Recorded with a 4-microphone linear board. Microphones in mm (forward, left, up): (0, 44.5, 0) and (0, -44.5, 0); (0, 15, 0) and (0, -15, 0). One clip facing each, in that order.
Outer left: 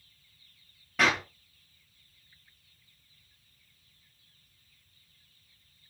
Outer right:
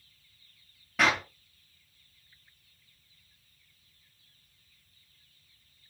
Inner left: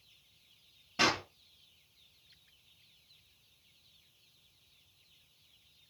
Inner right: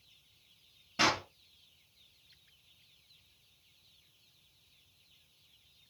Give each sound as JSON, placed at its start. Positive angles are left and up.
{"t": 1.0, "sound": "a clap", "side_deg": 0, "distance_m": 1.9}